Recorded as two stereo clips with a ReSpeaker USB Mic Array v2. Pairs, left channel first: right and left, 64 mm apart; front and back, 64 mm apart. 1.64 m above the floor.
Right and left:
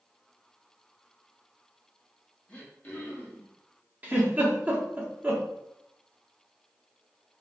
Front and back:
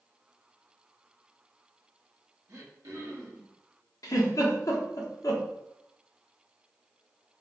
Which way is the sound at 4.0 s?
25° left.